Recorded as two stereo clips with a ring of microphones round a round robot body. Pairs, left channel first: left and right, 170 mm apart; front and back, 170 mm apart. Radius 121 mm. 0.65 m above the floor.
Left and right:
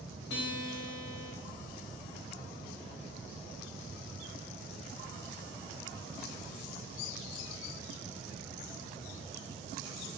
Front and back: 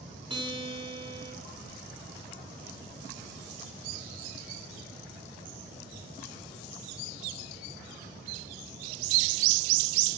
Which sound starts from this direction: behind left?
A guitar, at 0.3 s.